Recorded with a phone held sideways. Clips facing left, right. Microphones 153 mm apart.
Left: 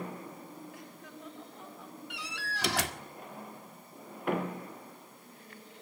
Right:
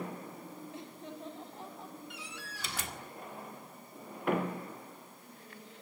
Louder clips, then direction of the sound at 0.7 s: Right 3 dB; 25° right (ahead or behind).